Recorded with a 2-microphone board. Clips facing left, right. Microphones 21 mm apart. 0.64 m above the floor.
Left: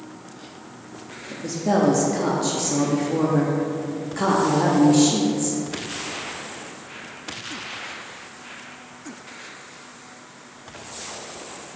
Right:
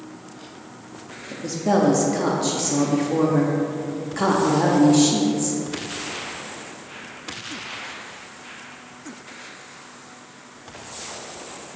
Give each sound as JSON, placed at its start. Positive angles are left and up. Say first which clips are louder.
{"t": 1.3, "sound": "a woman speaking", "louder": "right 1 dB", "side_deg": -10, "distance_m": 0.6}